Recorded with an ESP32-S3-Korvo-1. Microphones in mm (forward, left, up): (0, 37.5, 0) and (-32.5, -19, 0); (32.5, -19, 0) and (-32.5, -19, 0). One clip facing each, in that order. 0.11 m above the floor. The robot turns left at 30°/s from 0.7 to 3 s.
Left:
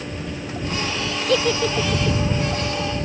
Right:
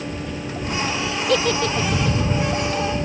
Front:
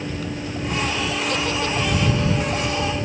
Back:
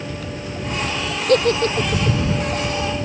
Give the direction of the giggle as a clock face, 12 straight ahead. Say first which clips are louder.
Even, back 12 dB; 7 o'clock.